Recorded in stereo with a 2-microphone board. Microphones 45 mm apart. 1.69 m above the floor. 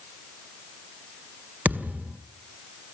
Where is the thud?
40° right (ahead or behind), 1.6 m.